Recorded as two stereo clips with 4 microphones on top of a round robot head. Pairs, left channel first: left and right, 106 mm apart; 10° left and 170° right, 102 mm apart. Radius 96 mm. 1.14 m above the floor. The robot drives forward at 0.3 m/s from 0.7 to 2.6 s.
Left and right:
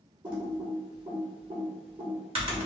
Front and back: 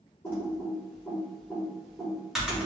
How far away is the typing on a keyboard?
About 1.3 m.